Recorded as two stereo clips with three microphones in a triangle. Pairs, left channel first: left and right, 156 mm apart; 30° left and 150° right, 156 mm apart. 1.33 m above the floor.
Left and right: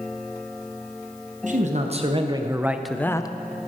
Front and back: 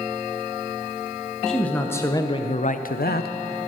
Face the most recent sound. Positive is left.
turn(degrees=25)